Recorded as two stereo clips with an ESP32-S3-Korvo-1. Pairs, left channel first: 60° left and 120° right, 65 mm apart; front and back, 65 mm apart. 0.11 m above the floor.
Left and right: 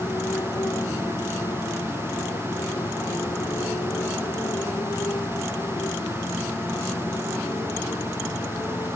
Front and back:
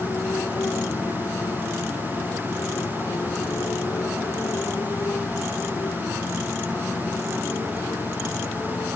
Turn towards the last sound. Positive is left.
turn(degrees=45)